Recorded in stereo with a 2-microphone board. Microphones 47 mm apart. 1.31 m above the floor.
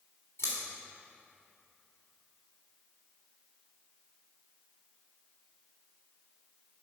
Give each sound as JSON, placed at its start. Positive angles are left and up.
{"t": 0.4, "sound": "scissors", "side_deg": 85, "distance_m": 3.0}